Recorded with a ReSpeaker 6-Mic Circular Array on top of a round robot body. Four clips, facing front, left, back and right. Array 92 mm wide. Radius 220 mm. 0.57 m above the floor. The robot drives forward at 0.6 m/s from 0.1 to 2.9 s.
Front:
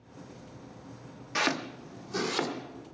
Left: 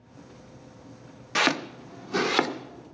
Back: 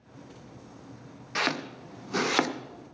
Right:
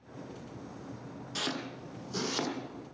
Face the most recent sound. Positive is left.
turn(degrees=145)